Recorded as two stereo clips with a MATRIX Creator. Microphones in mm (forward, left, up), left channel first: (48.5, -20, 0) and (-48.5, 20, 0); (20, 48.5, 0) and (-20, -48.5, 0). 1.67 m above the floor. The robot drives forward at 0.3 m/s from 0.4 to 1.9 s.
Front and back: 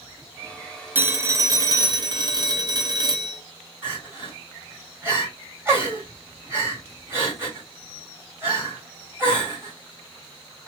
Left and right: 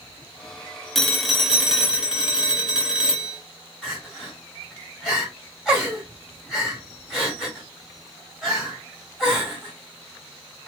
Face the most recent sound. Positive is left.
turn(degrees=165)